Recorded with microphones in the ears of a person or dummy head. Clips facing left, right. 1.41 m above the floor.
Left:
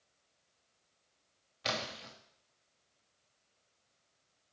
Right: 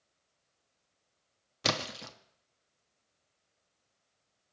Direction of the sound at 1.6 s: 75° right (ahead or behind).